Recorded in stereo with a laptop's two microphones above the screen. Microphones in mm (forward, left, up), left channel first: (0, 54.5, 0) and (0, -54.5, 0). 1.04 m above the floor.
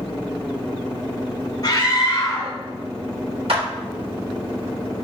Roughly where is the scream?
Left.